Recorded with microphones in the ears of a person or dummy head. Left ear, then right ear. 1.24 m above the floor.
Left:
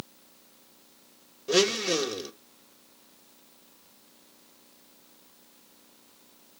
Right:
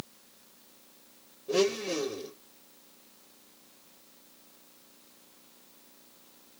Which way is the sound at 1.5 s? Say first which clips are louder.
Left 4 dB; 55° left (ahead or behind).